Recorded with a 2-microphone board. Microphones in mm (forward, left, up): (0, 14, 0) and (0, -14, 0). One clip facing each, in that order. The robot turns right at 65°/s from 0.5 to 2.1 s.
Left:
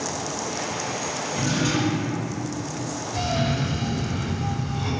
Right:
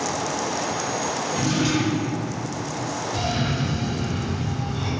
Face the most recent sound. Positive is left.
turn(degrees=-30)  # may be behind; listen again after turning